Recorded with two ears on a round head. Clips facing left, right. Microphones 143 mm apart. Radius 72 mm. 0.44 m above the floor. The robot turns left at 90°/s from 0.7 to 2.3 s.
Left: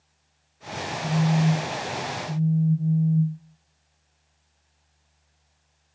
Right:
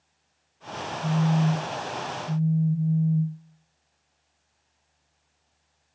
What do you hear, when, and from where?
1.0 s a phone buzzing: 55° right, 1.5 m; by 3.4 s 170° right, 1.5 m